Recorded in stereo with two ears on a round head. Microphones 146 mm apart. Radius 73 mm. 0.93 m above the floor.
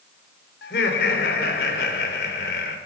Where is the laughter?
65° left (ahead or behind), 3 m.